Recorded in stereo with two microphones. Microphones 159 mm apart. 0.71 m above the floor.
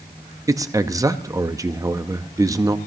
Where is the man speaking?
20° right (ahead or behind), 0.6 m.